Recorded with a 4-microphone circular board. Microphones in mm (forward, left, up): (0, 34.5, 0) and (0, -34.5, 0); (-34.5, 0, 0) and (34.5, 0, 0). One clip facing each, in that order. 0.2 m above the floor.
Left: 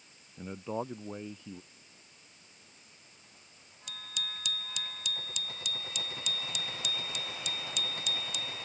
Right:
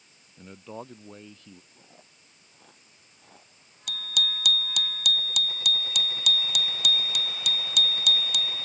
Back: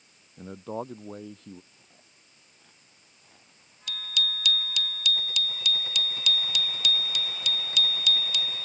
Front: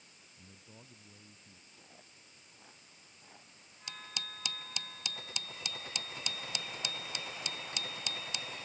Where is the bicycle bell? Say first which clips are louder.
Right 10 dB, back 11 dB; 65° right.